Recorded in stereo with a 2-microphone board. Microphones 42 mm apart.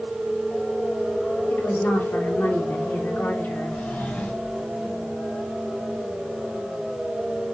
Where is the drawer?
55° left (ahead or behind), 2.5 m.